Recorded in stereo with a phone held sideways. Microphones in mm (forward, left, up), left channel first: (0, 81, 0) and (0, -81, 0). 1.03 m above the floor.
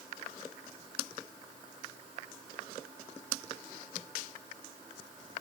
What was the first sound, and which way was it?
Only background noise.